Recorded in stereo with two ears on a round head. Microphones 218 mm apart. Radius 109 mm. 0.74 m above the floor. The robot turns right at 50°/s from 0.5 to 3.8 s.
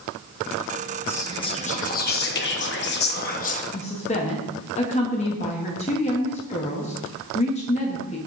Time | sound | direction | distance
1.1 | whispering | 10° left | 0.9 m
3.7 | a woman speaking | 25° left (ahead or behind) | 0.8 m